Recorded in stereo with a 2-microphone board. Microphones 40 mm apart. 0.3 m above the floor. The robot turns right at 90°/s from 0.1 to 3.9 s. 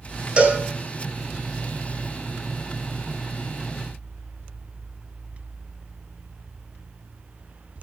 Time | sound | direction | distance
0.4 | a cowbell | 30° right (ahead or behind) | 1.6 m